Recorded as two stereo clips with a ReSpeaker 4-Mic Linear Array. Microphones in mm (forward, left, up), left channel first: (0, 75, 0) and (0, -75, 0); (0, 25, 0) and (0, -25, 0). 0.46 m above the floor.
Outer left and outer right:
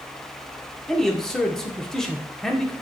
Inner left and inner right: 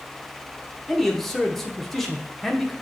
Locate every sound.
0.9 s a man speaking: 5° left (ahead or behind), 0.7 m